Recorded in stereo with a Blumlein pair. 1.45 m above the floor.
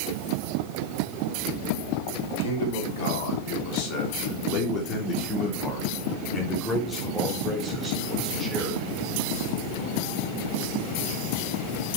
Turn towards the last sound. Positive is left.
turn(degrees=-5)